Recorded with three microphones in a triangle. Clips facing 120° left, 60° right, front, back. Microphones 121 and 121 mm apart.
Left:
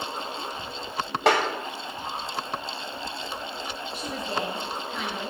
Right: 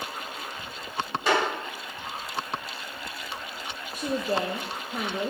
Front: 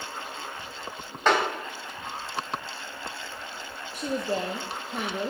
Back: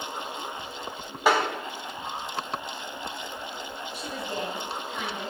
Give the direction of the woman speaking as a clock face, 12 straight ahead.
1 o'clock.